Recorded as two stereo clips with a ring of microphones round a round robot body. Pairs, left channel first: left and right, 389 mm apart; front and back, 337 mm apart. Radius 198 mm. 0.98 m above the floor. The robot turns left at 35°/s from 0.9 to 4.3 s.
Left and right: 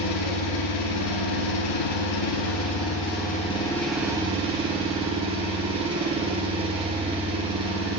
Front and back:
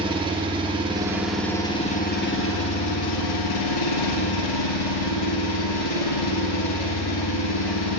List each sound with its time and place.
0.0 s an engine running: 105° left, 0.8 m; by 8.0 s 15° right, 0.8 m